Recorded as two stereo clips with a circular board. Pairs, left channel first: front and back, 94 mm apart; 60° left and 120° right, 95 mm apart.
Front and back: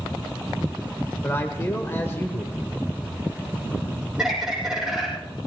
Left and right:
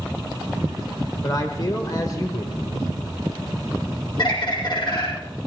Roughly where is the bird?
Left.